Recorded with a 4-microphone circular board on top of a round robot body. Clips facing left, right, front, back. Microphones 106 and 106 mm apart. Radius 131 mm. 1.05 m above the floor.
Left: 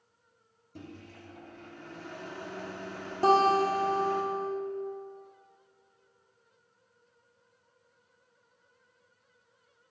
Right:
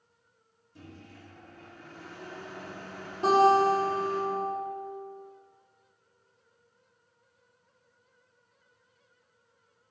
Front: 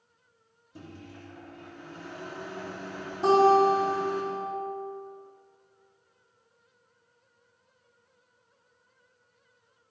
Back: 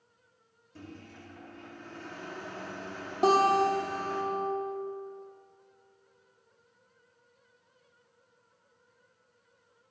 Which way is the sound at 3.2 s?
145° left.